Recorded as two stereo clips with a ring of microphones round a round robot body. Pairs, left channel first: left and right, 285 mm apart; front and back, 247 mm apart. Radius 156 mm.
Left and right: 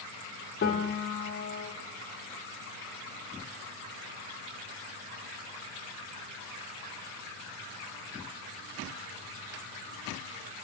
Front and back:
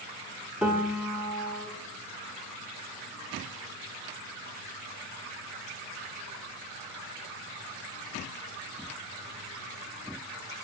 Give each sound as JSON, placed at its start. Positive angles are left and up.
{"t": 0.6, "sound": "a piano", "azimuth_deg": 100, "distance_m": 1.3}